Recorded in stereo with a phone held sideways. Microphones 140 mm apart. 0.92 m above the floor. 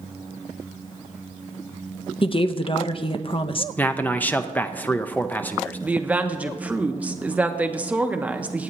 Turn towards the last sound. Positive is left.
turn(degrees=-10)  # may be behind; listen again after turning